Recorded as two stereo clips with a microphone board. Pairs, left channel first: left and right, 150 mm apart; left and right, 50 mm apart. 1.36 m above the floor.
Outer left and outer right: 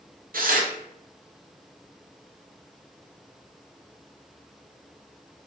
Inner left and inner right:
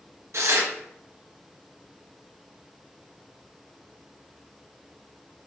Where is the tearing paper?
65° right (ahead or behind), 0.5 m.